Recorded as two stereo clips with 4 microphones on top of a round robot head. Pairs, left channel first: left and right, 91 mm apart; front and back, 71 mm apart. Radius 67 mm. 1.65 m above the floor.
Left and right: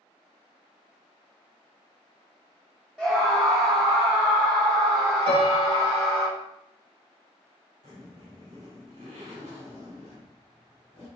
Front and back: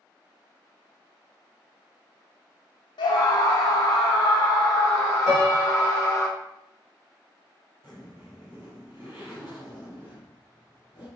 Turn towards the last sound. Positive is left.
turn(degrees=-60)